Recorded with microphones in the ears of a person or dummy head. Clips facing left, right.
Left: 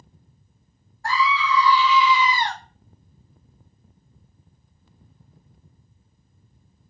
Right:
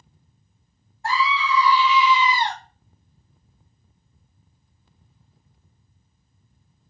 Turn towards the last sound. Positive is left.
turn(degrees=-20)  # may be behind; listen again after turning